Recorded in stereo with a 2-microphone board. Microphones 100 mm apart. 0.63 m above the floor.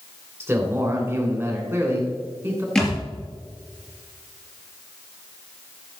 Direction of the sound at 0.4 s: 30° right (ahead or behind).